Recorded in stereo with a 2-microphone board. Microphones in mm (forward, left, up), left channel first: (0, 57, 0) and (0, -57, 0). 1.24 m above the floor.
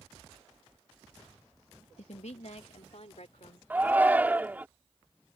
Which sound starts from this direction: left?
A woman speaking, at 2.0 s.